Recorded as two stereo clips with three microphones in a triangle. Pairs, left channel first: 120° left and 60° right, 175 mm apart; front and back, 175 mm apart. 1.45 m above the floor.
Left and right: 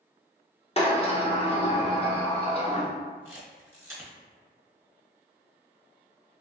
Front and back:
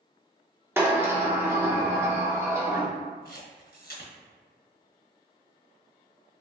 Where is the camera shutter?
15° left, 1.0 m.